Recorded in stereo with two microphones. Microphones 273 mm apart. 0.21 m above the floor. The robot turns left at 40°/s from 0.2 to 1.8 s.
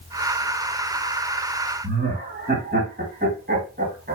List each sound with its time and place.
1.8 s laughter: 35° right (ahead or behind), 1.9 m